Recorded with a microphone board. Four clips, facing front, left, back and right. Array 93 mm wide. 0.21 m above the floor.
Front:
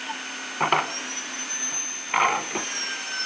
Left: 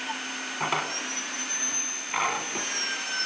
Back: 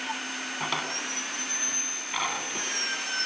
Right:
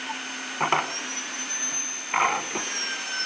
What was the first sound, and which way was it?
A drawer, 30° right.